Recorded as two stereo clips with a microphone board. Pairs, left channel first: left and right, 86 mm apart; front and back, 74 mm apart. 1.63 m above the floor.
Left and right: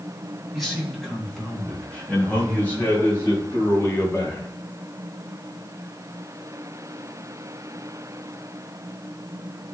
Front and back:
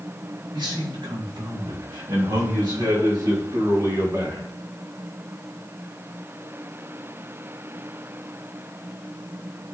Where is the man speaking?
Straight behind, 3.5 m; by 4.5 s 145° left, 4.5 m.